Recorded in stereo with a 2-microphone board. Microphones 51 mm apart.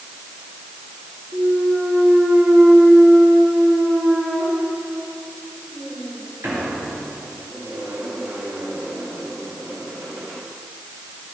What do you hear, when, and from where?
1.3 s a clunk: 65° right (ahead or behind), 5.5 m